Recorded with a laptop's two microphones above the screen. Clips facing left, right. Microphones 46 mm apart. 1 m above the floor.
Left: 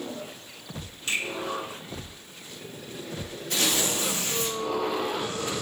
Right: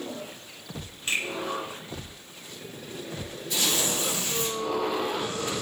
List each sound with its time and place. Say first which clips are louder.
1.1 s a finger snap: right 1 dB; 25° right (ahead or behind), 1.9 m
3.5 s tearing paper: left 1 dB; 55° left (ahead or behind), 0.9 m